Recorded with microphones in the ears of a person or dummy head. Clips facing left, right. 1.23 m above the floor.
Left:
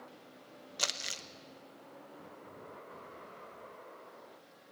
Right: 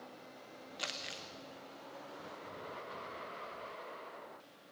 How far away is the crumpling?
About 0.9 m.